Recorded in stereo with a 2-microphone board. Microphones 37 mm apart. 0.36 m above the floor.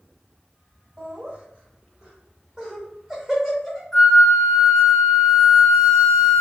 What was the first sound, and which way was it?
Laughter, 30° right (ahead or behind).